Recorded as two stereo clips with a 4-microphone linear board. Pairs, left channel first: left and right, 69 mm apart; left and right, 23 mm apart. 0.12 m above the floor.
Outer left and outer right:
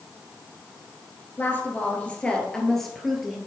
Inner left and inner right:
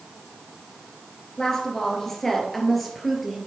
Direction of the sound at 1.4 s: 30° left (ahead or behind).